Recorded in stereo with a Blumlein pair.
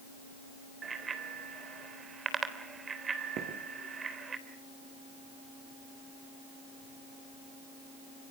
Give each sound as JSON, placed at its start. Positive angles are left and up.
{"t": 0.8, "sound": "a bicycle bell", "azimuth_deg": -15, "distance_m": 3.0}
{"t": 3.4, "sound": "footsteps", "azimuth_deg": -35, "distance_m": 4.5}